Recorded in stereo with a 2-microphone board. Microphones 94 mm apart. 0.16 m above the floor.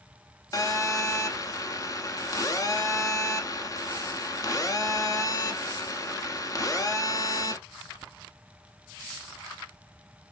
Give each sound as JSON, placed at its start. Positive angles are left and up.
{"t": 0.5, "sound": "a phone buzzing", "side_deg": 40, "distance_m": 0.6}